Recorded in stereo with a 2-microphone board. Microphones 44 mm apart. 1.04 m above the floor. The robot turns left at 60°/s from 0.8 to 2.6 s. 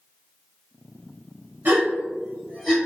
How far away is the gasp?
About 1.4 m.